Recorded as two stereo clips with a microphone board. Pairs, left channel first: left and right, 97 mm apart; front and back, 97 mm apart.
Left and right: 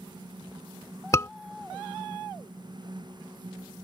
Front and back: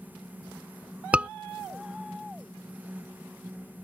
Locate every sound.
1.1 s a scream: 115° left